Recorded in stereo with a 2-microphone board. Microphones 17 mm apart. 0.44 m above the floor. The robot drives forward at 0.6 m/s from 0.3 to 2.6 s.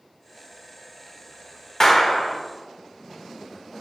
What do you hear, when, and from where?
1.8 s a clap: 35° left (ahead or behind), 0.9 m; by 2.4 s 30° left (ahead or behind), 1.1 m